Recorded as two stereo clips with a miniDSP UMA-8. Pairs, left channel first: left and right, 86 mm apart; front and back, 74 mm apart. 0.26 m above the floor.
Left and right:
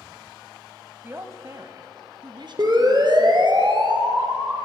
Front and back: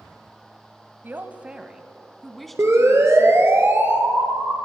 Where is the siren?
130° right, 4 m; by 4.6 s 115° right, 4 m.